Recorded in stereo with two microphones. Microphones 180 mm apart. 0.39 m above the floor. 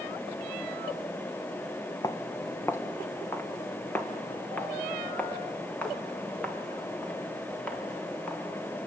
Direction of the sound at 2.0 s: 20° left (ahead or behind).